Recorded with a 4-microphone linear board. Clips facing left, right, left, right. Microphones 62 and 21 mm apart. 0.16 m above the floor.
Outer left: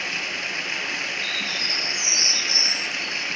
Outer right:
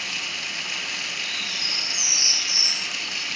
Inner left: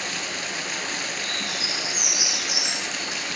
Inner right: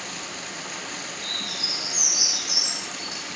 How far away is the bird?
About 8 m.